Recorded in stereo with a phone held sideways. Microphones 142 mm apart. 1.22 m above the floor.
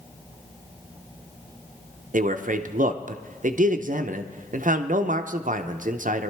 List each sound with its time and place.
2.1 s a man speaking: 65° right (ahead or behind), 0.5 m